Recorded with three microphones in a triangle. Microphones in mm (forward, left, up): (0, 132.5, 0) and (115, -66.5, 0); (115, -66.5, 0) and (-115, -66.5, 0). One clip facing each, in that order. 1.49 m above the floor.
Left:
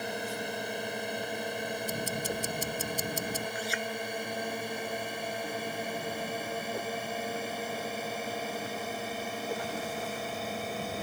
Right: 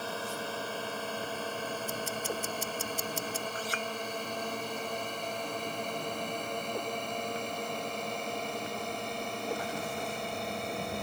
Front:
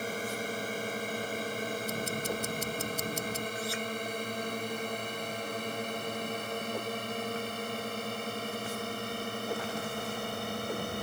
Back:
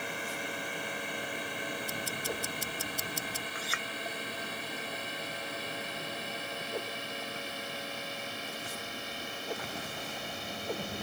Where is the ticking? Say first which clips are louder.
Left 2 dB, front 4 dB; 70° left.